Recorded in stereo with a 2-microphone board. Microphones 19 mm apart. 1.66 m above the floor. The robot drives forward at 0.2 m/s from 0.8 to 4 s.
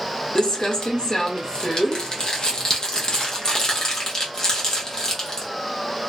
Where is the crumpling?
45° left (ahead or behind), 0.7 m; by 5.5 s 35° left (ahead or behind), 0.8 m.